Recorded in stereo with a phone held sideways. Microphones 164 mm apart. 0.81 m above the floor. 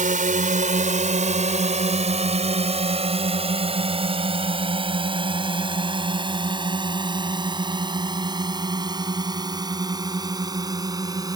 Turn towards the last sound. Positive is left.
turn(degrees=-20)  # may be behind; listen again after turning